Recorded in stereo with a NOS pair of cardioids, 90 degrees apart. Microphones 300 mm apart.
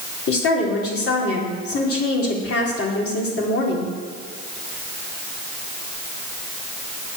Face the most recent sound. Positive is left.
turn(degrees=50)